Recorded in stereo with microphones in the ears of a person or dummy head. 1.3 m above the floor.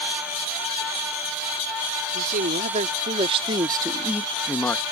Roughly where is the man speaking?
Right.